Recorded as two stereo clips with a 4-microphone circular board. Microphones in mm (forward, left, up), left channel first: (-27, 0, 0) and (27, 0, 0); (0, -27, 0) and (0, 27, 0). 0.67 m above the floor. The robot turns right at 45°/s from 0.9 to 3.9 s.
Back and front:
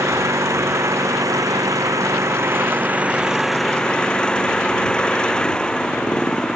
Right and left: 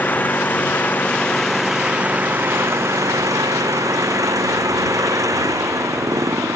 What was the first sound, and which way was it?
An engine running, 30° right.